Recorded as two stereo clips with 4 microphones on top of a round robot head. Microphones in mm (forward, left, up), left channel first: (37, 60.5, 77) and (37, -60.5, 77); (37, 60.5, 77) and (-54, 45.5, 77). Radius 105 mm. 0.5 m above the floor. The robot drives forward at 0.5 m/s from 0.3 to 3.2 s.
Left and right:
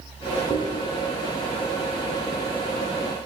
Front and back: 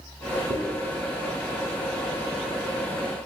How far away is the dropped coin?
About 0.9 m.